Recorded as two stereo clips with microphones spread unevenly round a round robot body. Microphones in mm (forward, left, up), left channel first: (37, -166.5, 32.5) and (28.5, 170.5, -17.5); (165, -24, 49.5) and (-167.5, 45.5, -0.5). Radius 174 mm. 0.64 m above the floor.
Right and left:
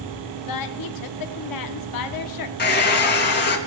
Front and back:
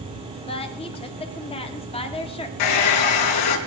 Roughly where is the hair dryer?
Ahead right.